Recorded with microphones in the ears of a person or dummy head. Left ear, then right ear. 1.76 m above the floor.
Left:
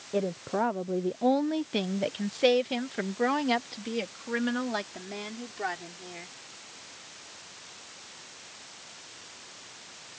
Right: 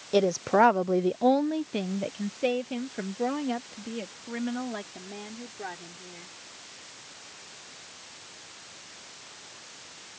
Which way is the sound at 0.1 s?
85° right.